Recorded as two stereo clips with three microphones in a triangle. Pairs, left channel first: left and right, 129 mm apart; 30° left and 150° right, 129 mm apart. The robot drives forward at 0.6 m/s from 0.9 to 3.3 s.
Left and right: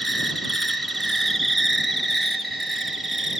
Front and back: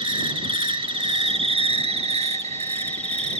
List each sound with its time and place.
0.0 s an insect: straight behind, 1.3 m